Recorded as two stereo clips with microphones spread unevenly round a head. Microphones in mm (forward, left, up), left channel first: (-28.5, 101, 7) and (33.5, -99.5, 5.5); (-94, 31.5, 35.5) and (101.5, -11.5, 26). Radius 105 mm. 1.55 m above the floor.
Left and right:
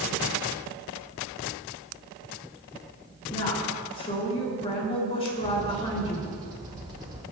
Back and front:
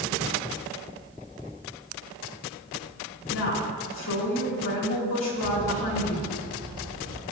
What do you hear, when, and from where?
3.3 s a woman speaking: 175° left, 4 m
5.3 s a bird: 15° right, 2 m